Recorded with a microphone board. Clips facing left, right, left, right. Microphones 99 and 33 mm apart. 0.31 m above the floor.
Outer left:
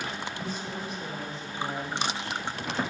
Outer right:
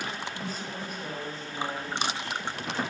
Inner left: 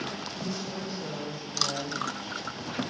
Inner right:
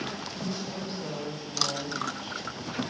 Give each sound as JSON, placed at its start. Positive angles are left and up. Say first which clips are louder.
{"t": 0.3, "sound": "a woman speaking", "louder": "outer left 1 dB, even", "side_deg": -45, "distance_m": 3.0}